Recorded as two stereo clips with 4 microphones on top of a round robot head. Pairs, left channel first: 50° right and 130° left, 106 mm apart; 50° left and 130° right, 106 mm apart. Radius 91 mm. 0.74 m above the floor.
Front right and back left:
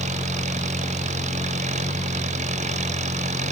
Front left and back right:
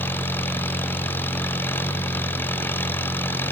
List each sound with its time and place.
0.0 s an engine running: 125° left